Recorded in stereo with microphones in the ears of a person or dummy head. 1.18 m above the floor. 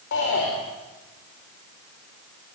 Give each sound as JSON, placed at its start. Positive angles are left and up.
{"t": 0.1, "sound": "a shout", "side_deg": 60, "distance_m": 5.0}